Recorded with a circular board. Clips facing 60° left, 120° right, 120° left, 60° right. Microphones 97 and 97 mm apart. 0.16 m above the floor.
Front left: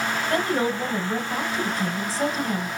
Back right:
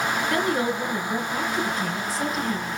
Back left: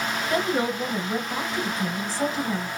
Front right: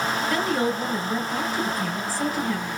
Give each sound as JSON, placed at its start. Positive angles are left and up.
{"t": 0.3, "sound": "a woman speaking", "azimuth_deg": 75, "distance_m": 1.4}